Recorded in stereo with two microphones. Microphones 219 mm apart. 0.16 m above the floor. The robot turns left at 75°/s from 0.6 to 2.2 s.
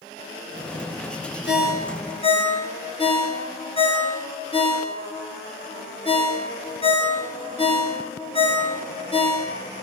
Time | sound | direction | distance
1.5 | a ringtone | 55° left (ahead or behind) | 1.6 m